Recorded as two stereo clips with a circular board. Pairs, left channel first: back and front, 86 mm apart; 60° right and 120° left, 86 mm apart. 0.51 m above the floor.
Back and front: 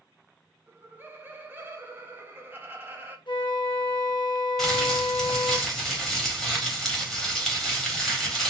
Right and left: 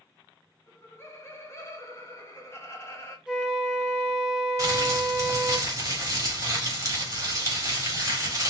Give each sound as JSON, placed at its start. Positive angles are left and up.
{"t": 0.7, "sound": "laughter", "azimuth_deg": -40, "distance_m": 1.0}
{"t": 3.3, "sound": "a flute", "azimuth_deg": -160, "distance_m": 0.6}
{"t": 4.6, "sound": "crumpling", "azimuth_deg": 90, "distance_m": 1.4}